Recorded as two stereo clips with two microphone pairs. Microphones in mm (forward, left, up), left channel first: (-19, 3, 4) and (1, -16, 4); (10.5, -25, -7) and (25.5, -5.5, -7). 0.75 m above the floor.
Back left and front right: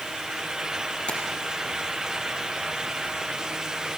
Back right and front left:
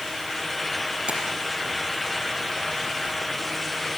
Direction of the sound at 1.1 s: 95° left.